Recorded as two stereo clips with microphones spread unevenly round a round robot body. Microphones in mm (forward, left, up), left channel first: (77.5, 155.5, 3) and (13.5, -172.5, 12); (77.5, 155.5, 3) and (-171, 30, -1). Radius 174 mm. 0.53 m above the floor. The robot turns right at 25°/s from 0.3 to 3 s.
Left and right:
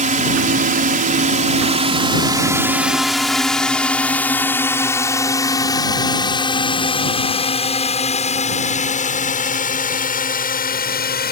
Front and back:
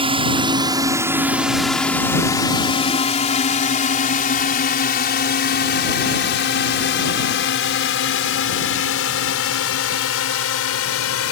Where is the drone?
125° right; by 11.3 s 25° left.